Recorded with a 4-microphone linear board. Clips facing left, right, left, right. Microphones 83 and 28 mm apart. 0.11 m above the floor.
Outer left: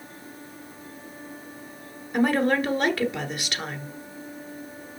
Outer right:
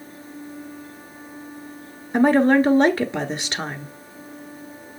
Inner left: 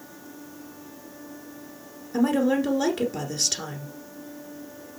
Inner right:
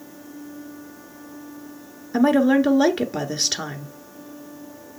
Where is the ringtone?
I don't hear a ringtone.